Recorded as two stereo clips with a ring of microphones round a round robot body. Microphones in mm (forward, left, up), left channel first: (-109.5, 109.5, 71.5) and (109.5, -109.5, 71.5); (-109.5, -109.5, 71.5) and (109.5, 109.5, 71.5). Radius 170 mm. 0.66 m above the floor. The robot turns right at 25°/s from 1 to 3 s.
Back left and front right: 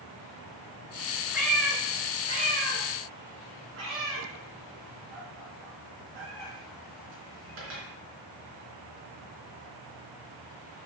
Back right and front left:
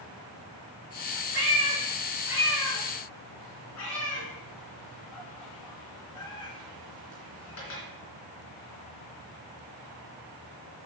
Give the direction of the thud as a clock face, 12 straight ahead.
No thud in this recording.